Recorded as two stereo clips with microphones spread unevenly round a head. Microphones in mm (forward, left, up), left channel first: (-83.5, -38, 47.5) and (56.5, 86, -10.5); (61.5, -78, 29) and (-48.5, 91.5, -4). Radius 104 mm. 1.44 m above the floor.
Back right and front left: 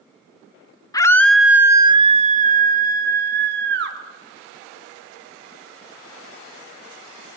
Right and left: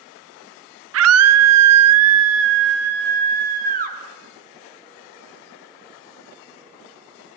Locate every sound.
0.9 s a scream: 150° left, 1.2 m; by 4.0 s 70° left, 2.5 m